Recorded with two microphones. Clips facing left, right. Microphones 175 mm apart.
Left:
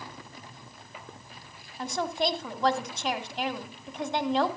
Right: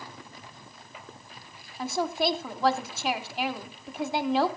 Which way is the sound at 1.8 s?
5° right (ahead or behind).